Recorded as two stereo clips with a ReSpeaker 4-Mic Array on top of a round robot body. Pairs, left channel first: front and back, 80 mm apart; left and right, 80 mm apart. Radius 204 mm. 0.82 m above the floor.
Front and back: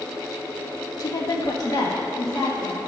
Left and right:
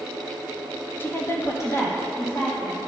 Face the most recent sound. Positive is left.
turn(degrees=40)